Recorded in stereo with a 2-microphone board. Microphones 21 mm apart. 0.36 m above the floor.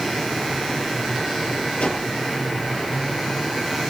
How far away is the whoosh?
About 6.5 m.